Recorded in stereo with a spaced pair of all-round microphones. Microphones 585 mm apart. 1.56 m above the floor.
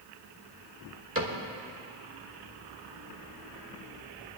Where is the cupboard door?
25° right (ahead or behind), 2.0 m.